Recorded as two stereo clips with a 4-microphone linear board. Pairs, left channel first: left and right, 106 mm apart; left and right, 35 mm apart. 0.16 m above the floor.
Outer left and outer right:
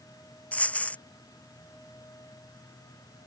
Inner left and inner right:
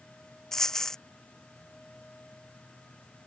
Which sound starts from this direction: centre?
A dropped coin, at 0.5 s.